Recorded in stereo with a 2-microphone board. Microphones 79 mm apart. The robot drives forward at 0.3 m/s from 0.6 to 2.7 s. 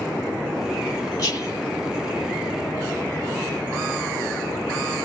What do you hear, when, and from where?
1.2 s whispering: 40° left (ahead or behind), 4.5 m